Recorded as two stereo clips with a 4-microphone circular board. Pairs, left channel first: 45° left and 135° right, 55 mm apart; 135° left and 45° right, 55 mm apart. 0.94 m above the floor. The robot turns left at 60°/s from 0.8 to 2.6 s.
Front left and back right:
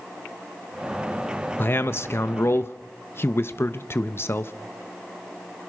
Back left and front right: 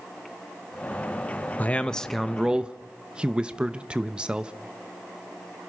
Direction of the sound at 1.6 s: 80° left.